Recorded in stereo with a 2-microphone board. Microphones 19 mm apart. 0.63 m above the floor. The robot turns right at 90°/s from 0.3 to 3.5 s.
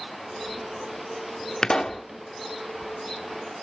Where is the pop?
130° left, 0.8 m; by 2.0 s 170° left, 0.8 m.